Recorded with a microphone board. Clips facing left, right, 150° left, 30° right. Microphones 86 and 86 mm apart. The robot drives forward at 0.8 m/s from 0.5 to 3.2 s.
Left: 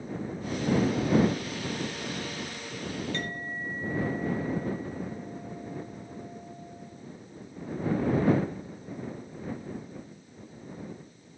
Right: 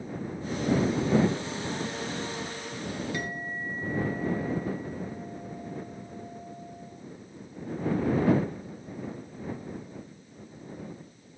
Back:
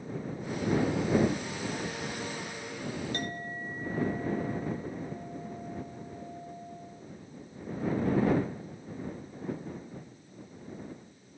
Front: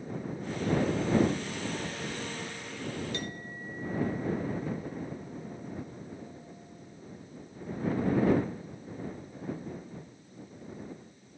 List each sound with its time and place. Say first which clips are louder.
3.1 s a clink: right 1 dB, back 2 dB; 170° right